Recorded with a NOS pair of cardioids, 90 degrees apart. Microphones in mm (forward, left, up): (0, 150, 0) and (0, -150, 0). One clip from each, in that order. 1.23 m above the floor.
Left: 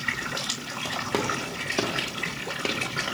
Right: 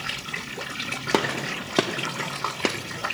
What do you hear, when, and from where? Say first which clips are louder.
1.1 s a gunshot: right 5 dB; 35° right, 0.9 m